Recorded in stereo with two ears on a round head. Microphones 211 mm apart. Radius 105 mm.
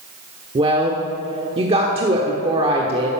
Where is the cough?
I don't hear a cough.